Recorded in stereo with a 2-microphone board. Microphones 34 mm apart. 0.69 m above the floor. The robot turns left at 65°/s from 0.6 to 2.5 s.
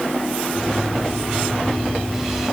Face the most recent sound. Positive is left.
No sound to turn to.